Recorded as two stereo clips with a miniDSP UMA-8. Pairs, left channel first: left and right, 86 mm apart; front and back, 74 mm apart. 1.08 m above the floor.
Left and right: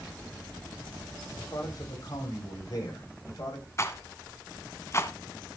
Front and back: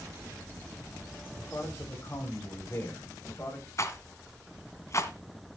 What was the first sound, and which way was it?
A man speaking, 50° left.